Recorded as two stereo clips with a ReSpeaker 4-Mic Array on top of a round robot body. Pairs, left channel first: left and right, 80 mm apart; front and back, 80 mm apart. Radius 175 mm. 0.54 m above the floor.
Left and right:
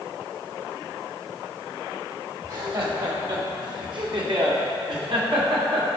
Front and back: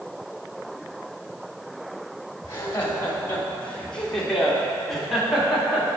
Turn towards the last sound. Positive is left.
turn(degrees=-100)